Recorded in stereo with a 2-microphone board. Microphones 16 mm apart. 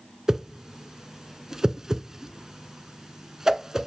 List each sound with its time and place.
0.3 s a whoosh: 35° right (ahead or behind), 0.6 m